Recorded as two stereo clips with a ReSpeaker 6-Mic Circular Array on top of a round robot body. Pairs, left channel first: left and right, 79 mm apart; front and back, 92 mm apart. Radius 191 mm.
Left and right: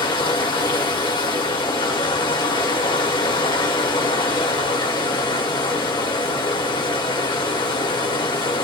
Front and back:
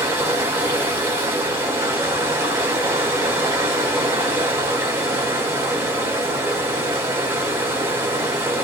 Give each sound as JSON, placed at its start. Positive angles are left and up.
{"t": 0.0, "sound": "running water", "azimuth_deg": 120, "distance_m": 1.0}